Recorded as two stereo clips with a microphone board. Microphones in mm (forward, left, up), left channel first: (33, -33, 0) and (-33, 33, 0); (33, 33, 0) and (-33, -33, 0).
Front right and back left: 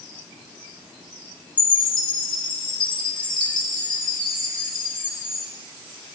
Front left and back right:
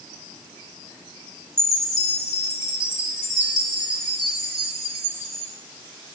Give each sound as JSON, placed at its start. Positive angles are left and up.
{"t": 1.6, "sound": "a chime", "azimuth_deg": -10, "distance_m": 1.1}